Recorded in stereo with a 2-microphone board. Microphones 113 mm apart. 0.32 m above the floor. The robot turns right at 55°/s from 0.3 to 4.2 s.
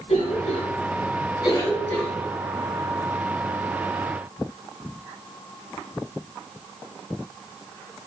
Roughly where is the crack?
No crack in this recording.